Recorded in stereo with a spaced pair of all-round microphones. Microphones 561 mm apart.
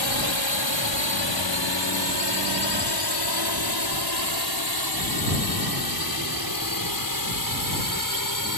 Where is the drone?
55° left (ahead or behind); by 8.6 s 35° left (ahead or behind).